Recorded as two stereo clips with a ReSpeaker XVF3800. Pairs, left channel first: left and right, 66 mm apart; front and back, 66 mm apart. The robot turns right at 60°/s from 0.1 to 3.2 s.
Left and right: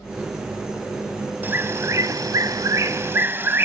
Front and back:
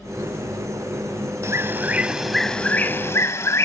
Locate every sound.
1.4 s a bird: 145° right; by 3.7 s 40° right